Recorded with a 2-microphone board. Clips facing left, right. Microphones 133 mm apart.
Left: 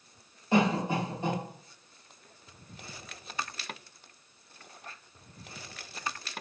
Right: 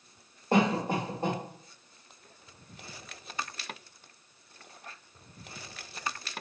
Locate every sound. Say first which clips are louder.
0.5 s a cough: even; 50° right (ahead or behind), 1.3 m